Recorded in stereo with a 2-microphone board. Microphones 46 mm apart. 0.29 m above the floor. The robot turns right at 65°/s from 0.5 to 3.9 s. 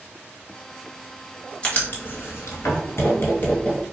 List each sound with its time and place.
1.6 s writing: 25° left (ahead or behind), 0.8 m; by 3.8 s 10° left (ahead or behind), 0.8 m